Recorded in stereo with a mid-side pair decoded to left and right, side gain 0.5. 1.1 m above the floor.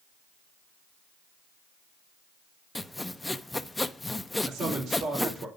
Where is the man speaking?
60° right, 3 m.